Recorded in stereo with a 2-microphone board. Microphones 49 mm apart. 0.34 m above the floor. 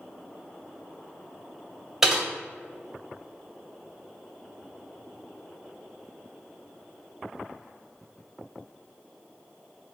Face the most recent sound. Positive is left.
turn(degrees=-5)  # may be behind; listen again after turning